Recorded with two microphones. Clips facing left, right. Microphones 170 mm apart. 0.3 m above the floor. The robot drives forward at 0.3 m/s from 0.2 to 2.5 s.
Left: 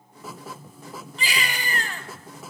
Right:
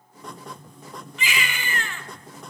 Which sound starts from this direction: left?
A baby crying, at 1.2 s.